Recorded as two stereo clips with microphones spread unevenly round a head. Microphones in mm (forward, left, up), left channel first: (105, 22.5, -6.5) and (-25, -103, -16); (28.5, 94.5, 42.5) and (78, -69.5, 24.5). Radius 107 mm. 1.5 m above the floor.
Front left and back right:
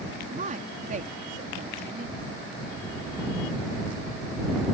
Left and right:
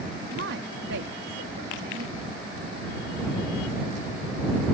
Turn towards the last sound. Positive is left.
turn(degrees=-90)